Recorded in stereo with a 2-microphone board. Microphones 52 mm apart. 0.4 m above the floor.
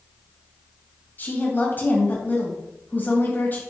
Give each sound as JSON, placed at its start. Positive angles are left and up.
{"t": 1.2, "sound": "a woman speaking", "side_deg": 35, "distance_m": 2.5}